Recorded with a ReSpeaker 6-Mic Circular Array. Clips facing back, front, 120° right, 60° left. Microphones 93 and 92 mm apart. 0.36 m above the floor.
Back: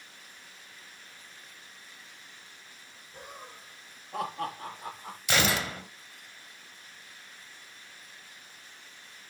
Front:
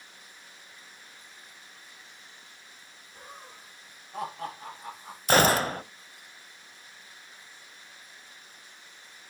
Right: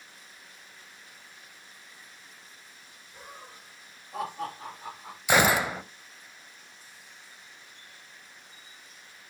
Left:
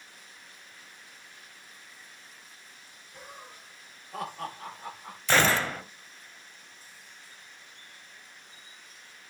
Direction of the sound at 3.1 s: 155° left.